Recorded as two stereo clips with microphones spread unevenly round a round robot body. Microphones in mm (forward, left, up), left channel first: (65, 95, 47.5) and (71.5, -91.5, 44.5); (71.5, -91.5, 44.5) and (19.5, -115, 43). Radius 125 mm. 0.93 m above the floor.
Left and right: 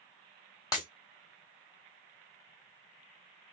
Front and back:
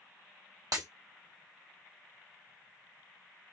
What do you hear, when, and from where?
0.7 s breaking glass: 165° left, 0.8 m